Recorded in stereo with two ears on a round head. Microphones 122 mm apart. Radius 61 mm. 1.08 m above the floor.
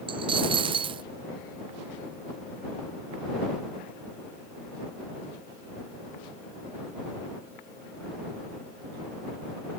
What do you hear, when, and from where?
0.1 s a dropped coin: 35° right (ahead or behind)